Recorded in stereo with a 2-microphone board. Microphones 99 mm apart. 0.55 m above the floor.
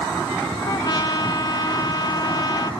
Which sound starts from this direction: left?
A trumpet, at 0.7 s.